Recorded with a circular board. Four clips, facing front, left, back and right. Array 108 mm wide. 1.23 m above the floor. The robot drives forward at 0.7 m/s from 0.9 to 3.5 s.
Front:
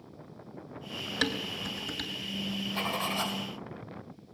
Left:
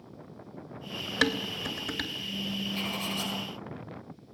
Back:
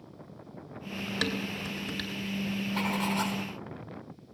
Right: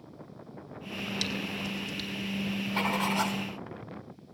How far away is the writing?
About 4.5 m.